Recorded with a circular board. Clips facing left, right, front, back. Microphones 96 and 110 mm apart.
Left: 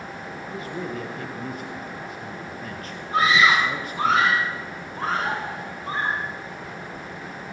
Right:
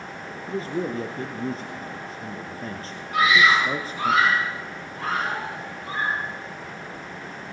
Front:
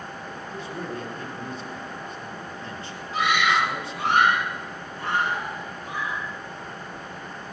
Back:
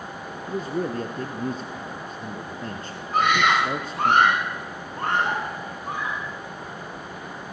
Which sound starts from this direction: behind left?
A scream, at 3.1 s.